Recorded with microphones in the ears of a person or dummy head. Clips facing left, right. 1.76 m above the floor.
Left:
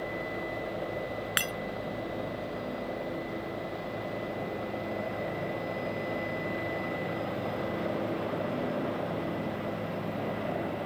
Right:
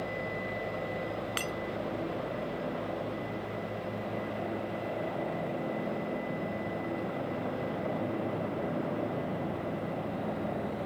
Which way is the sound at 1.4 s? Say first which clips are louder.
Even; 20° left (ahead or behind).